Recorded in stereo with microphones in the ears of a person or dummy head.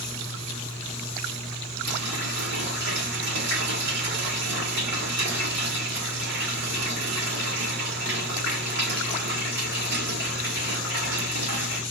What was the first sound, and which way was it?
A running tap, 60° right (ahead or behind).